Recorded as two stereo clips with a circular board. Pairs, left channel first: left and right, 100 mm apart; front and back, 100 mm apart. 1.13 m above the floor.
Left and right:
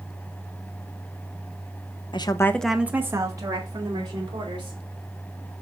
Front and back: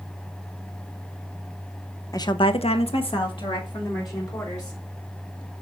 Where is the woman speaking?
55° left, 0.9 m; by 4.8 s 50° right, 3.5 m.